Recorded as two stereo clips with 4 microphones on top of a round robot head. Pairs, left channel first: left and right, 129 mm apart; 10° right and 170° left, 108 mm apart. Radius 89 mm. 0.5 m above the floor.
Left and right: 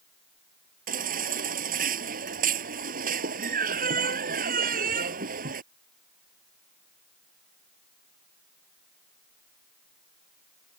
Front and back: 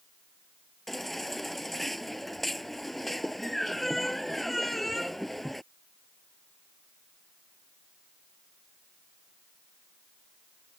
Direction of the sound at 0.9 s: 100° right.